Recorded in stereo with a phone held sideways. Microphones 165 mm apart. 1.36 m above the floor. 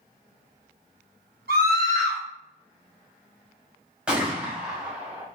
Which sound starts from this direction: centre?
A gunshot, at 4.1 s.